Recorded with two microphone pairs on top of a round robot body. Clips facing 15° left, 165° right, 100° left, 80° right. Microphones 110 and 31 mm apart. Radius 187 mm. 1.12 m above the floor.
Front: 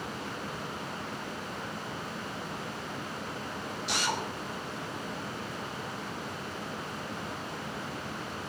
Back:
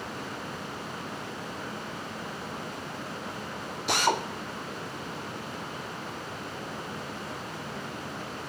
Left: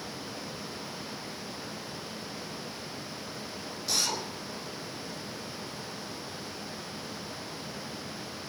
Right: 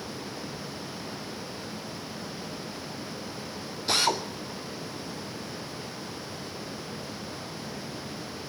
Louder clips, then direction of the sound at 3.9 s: Back 7 dB, right 6 dB; 125° right.